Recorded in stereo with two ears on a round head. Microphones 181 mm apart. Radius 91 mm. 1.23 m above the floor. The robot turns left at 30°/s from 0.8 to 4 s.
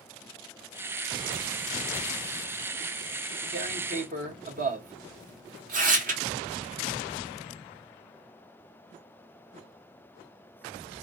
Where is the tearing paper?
50° right (ahead or behind), 1.1 m; by 6.2 s 40° right (ahead or behind), 1.1 m.